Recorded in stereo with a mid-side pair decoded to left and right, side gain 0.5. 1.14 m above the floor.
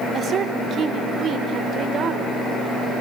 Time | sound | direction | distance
0.1 | a woman speaking | 50° right | 4 m